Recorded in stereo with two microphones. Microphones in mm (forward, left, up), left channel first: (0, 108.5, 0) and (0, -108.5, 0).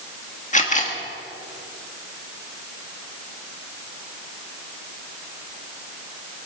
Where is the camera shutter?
35° left (ahead or behind), 1.6 m.